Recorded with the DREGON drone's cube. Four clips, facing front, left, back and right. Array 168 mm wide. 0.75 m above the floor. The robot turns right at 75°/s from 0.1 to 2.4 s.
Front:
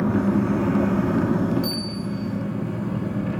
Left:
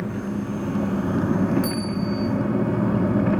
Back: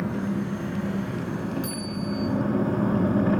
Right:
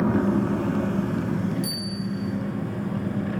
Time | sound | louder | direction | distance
0.0 | an engine running | right 6 dB, front 7 dB | 45° right | 0.7 m
1.6 | a bell | left 6 dB, front 2 dB | 175° right | 2.5 m